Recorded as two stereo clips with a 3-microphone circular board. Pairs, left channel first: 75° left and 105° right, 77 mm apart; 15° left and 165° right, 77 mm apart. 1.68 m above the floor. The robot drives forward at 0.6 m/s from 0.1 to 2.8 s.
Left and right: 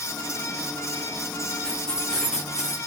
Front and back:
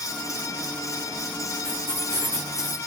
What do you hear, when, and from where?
1.6 s keys jangling: 155° left, 4 m